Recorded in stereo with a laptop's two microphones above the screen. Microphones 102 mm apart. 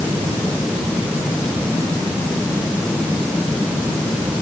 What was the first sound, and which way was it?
Only background noise.